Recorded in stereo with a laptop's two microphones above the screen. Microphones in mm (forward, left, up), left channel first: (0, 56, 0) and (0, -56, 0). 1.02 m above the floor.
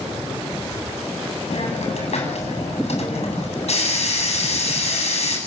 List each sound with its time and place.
1.5 s a hiss: 70° left (ahead or behind), 8 m